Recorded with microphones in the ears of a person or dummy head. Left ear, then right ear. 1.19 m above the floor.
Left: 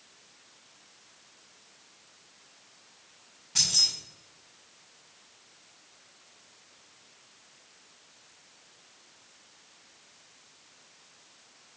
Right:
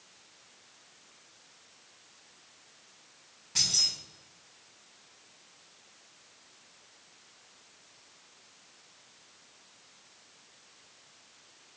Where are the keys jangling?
Centre (ahead or behind), 2.5 m.